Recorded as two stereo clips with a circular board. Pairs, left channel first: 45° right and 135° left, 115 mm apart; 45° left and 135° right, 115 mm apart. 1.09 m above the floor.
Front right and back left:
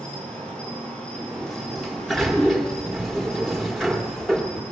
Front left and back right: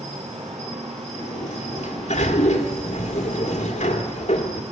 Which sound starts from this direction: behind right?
An insect, at 0.0 s.